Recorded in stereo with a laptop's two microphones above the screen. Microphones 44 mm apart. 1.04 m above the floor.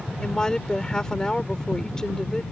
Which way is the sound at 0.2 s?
15° left (ahead or behind).